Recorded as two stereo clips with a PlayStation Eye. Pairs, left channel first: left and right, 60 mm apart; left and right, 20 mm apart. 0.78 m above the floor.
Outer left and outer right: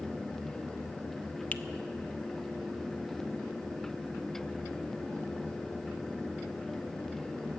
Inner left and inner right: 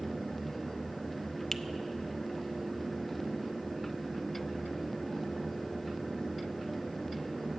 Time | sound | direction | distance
1.5 | a finger snap | 25° left (ahead or behind) | 0.6 m